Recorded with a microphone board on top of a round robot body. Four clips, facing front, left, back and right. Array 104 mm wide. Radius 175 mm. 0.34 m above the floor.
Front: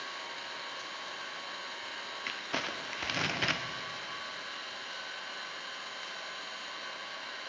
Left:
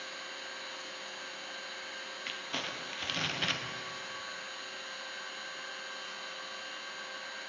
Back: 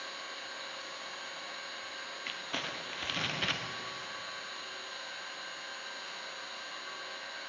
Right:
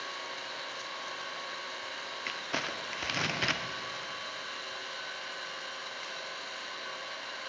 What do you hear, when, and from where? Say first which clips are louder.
0.0 s an engine running: right 4 dB, front 2 dB; 70° right, 2 m
2.3 s crumpling: right 4 dB, front 3 dB; 50° right, 1.3 m